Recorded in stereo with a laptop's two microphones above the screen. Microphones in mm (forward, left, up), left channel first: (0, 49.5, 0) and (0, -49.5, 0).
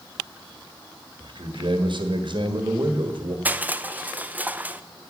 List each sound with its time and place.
1.2 s a man speaking: 60° right (ahead or behind), 1.5 m
3.5 s crushing: 15° right (ahead or behind), 0.5 m